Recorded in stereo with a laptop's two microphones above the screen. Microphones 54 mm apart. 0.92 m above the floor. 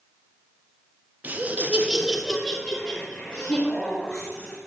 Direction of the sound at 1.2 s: 30° right (ahead or behind).